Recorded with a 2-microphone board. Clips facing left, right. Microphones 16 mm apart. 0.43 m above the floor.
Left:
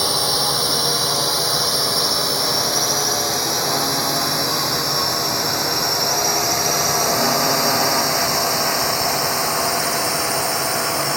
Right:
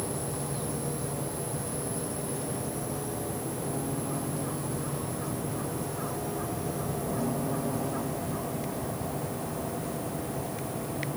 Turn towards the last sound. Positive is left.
turn(degrees=85)